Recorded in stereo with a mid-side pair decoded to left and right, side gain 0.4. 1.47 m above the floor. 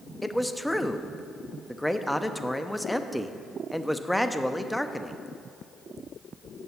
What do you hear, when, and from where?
0.2 s a man speaking: 5° left, 0.6 m